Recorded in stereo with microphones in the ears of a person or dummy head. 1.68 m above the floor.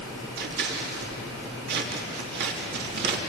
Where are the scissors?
65° right (ahead or behind), 3.5 m.